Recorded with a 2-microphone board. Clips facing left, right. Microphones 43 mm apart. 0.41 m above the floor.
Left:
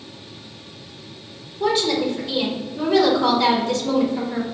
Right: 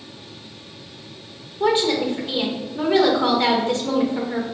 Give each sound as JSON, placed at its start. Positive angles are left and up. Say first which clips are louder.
{"t": 1.6, "sound": "a woman speaking", "louder": "right 1 dB", "side_deg": -25, "distance_m": 0.9}